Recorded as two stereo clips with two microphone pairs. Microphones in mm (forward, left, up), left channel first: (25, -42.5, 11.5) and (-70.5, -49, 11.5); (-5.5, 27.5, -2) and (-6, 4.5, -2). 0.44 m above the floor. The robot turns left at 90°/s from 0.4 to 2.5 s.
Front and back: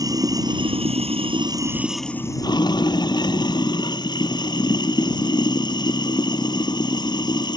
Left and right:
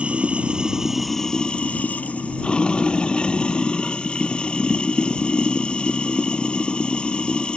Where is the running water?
125° right; by 7.6 s 45° left.